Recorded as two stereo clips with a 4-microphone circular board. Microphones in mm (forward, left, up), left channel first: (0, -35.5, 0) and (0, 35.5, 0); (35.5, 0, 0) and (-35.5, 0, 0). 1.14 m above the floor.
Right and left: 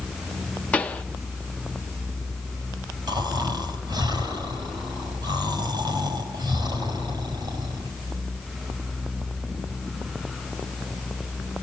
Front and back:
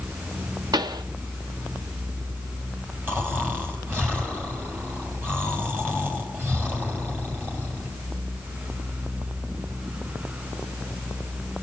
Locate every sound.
0.7 s a pop: 160° right, 1.0 m
3.1 s snoring: 115° left, 5 m